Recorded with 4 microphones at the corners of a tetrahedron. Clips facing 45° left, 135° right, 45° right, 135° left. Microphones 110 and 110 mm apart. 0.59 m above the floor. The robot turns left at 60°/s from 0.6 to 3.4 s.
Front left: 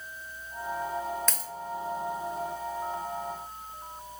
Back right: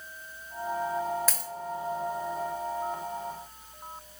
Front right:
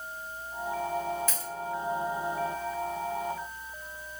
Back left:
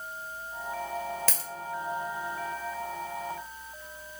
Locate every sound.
1.3 s a dropped coin: 140° left, 0.7 m; by 1.5 s 125° left, 0.7 m